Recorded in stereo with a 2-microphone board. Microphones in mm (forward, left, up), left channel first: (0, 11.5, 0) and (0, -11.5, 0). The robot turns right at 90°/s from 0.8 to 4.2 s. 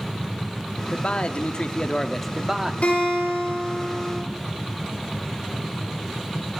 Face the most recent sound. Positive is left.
turn(degrees=-145)